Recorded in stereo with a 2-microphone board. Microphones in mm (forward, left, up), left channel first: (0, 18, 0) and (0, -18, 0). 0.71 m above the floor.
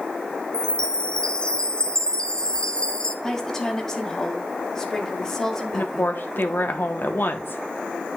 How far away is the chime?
About 0.7 m.